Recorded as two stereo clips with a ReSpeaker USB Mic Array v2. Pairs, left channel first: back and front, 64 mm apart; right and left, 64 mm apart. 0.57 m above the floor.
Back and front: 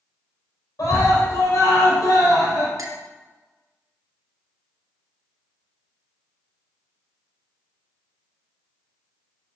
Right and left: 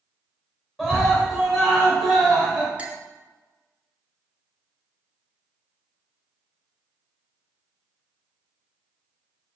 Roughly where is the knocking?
No knocking in this recording.